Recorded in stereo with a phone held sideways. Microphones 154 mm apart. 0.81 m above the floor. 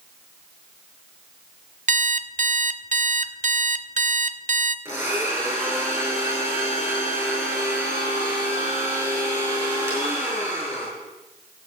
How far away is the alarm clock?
About 0.5 m.